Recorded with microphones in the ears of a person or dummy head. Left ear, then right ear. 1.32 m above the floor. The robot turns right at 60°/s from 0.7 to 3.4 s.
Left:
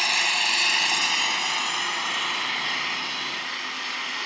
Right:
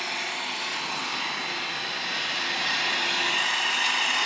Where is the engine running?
55° left, 1.1 m; by 4.3 s 140° right, 1.1 m.